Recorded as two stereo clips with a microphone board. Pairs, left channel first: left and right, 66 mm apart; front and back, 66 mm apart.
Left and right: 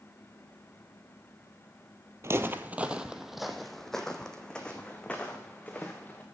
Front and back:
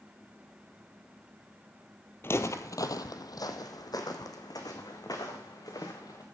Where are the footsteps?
50° right, 0.7 m; by 6.2 s 20° left, 3 m.